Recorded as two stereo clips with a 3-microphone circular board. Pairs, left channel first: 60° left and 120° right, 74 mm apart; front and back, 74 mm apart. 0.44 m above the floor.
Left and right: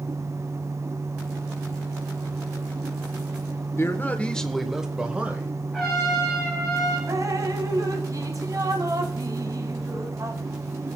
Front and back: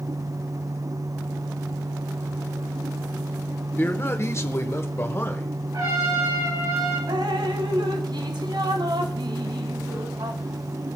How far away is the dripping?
About 1.0 m.